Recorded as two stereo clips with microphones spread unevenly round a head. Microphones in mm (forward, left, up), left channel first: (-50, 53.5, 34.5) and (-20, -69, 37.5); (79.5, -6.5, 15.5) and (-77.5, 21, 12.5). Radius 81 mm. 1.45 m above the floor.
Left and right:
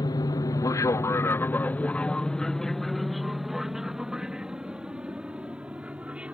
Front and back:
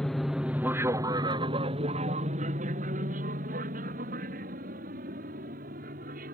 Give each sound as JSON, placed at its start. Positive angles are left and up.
{"t": 0.0, "sound": "an aircraft", "azimuth_deg": 75}